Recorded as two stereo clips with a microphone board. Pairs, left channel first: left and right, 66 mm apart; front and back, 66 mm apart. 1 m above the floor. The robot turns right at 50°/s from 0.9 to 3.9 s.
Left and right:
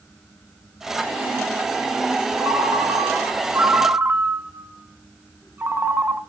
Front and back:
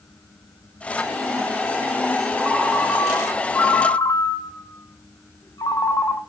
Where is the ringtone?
105° right, 1.1 m; by 6.2 s 30° right, 1.1 m.